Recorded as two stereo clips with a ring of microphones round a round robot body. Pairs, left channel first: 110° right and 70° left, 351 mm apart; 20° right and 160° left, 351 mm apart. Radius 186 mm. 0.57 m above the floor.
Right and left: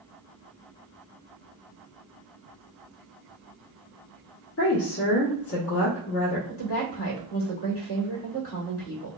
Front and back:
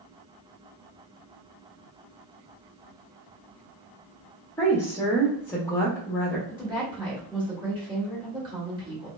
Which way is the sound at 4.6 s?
100° right.